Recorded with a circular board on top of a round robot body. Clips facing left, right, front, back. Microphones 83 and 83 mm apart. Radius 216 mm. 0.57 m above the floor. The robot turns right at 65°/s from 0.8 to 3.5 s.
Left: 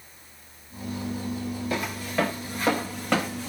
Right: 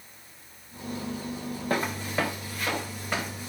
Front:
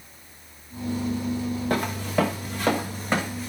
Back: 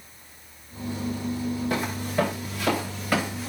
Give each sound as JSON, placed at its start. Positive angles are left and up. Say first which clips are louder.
{"t": 1.7, "sound": "footsteps", "louder": "right 2 dB, front 2 dB", "azimuth_deg": -40, "distance_m": 3.0}